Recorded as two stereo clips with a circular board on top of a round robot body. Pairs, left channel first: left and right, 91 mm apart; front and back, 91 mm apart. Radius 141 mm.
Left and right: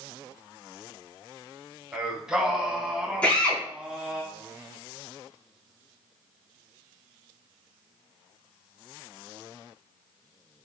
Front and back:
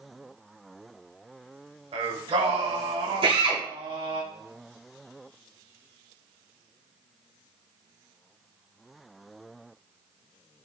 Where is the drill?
165° left, 4 m.